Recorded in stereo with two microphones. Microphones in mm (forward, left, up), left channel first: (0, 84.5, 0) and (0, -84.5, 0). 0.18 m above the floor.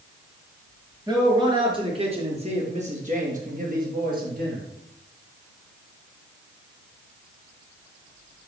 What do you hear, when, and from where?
1.1 s a man speaking: 20° right (ahead or behind), 3.5 m; by 4.6 s 60° right (ahead or behind), 4 m